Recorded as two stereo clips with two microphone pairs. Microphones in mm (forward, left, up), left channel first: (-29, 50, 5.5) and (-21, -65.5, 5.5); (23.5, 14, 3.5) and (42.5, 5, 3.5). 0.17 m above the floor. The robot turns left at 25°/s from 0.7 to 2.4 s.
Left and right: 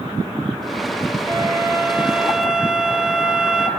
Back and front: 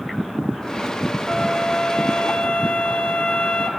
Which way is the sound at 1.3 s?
140° right.